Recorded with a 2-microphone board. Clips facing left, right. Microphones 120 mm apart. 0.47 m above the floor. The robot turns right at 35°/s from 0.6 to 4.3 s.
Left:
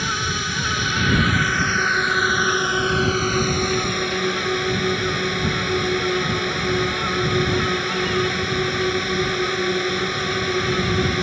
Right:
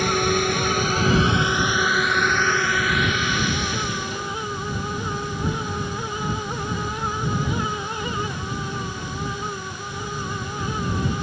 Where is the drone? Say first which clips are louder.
Right 6 dB; 50° right; by 11.2 s 75° left.